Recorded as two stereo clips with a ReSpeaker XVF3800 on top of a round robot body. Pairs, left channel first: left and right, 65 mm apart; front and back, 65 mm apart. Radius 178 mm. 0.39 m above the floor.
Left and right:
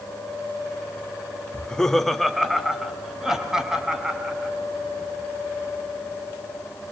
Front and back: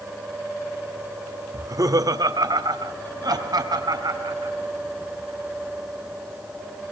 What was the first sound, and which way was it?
Laughter, 165° left.